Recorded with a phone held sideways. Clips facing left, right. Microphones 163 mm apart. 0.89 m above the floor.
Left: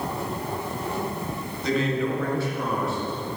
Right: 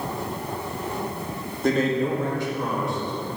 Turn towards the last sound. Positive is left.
turn(degrees=10)  # may be behind; listen again after turning